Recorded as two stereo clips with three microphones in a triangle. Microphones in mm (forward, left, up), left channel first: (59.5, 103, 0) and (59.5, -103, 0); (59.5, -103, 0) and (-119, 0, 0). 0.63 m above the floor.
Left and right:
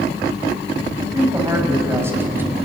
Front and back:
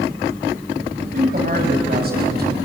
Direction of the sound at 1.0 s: 160° right.